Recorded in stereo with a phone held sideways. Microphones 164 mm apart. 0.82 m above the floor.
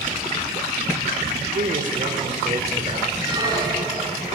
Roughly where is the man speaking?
Right.